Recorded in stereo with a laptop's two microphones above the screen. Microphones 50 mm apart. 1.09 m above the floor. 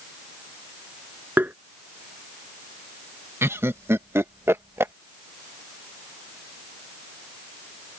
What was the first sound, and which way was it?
Tapping, 35° right (ahead or behind).